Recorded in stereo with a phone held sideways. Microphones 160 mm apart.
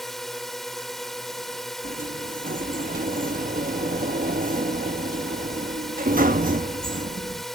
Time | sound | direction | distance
0.0 | a drone | centre (ahead or behind) | ?
1.8 | a sliding door | 60° right (ahead or behind) | ?